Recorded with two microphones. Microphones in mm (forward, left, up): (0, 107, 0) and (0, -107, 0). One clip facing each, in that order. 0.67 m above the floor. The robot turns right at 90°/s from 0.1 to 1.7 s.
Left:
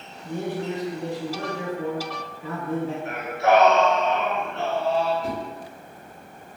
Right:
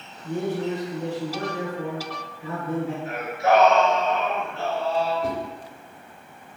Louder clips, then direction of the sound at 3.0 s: Left 1 dB; 75° left (ahead or behind).